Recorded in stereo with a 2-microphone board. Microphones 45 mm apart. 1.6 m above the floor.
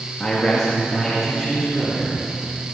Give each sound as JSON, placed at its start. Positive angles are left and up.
{"t": 0.2, "sound": "a man speaking", "side_deg": 20, "distance_m": 2.0}